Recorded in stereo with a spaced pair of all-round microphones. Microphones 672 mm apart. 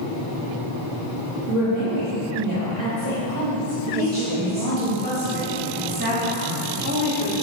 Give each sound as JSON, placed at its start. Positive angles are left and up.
{"t": 1.5, "sound": "a woman speaking", "side_deg": -85, "distance_m": 3.0}
{"t": 4.0, "sound": "a woman speaking", "side_deg": -15, "distance_m": 2.5}